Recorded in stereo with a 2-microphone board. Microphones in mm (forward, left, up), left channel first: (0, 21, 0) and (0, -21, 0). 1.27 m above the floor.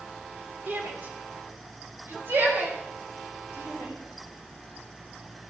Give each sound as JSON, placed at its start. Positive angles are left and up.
{"t": 0.7, "sound": "a shout", "side_deg": -45, "distance_m": 3.0}